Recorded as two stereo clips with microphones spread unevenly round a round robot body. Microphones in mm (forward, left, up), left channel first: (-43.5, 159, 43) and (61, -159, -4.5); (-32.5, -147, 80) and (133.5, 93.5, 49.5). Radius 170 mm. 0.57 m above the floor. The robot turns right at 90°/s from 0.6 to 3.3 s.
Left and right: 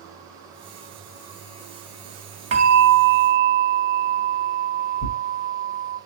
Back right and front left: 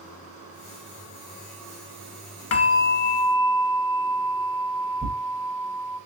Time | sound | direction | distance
2.5 | a bell | 120° right | 0.8 m
5.0 | tearing paper | 120° left | 2.5 m